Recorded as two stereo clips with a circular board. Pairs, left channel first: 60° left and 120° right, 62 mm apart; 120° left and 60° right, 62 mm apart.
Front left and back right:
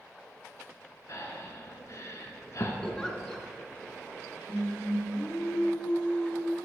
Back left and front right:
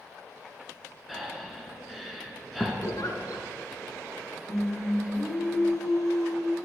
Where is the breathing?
30° left, 1.4 m.